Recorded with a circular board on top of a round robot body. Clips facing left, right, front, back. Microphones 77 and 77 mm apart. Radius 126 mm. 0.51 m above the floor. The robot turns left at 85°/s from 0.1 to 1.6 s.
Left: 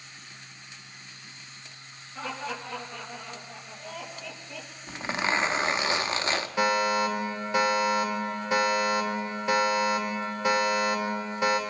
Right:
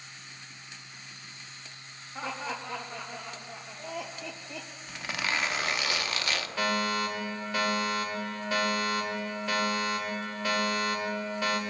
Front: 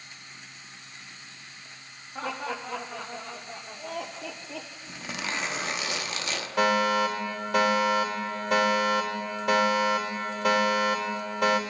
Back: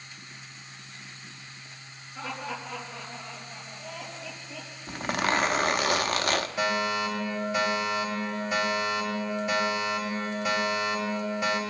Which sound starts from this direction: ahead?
A fire alarm, at 6.6 s.